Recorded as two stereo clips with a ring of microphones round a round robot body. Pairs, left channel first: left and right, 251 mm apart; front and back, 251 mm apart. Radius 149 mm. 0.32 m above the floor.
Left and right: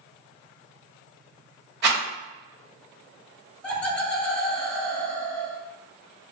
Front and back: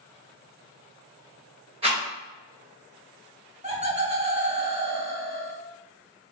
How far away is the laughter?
About 1.0 m.